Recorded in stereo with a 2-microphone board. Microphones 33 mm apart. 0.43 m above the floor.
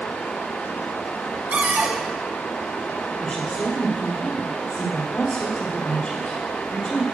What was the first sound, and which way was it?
Running water, 70° left (ahead or behind).